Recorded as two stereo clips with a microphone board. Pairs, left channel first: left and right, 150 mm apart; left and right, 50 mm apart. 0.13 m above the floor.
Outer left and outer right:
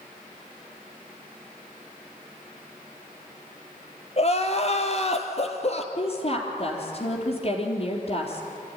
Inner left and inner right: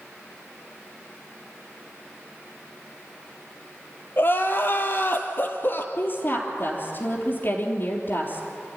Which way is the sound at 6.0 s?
40° left (ahead or behind).